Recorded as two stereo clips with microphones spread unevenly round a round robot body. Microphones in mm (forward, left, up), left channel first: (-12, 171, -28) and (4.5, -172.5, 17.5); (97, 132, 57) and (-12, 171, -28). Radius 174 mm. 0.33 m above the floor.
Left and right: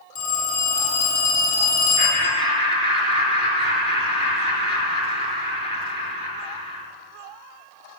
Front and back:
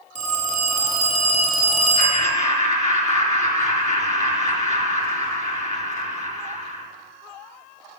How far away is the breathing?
No breathing in this recording.